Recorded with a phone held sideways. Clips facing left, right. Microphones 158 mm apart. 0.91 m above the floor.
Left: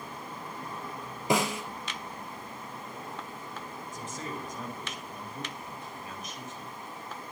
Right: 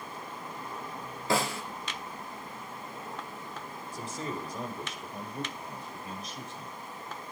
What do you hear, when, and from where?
1.3 s a snare drum: 15° left (ahead or behind), 3 m
3.9 s a man speaking: 35° right (ahead or behind), 4.5 m